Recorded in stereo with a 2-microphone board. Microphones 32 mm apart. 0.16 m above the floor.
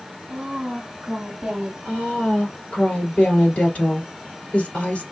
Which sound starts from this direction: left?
A woman speaking, at 1.9 s.